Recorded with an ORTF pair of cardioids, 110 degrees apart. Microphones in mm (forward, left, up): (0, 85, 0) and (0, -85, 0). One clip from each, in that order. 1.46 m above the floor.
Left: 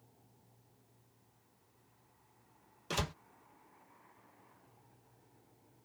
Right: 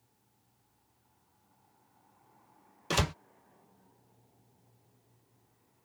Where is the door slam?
40° right.